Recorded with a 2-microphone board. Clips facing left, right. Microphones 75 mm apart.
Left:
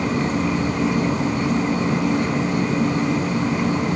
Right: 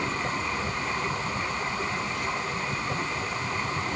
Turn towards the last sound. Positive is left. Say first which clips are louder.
# left 8 dB
turn(degrees=75)  # may be behind; listen again after turning